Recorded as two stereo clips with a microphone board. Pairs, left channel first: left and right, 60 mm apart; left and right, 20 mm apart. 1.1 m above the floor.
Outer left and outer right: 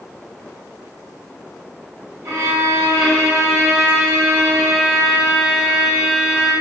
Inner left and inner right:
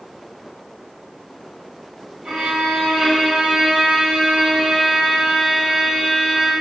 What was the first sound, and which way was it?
A violin, 65° right (ahead or behind).